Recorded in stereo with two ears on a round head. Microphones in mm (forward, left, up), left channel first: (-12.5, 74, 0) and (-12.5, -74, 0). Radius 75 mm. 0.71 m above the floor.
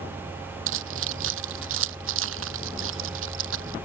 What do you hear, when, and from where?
0.7 s keys jangling: 80° right; by 3.8 s 85° right